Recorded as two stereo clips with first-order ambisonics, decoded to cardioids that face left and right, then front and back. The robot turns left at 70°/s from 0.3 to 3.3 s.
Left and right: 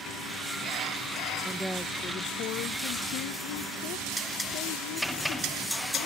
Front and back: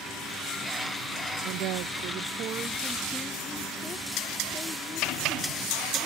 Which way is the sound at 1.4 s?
160° right.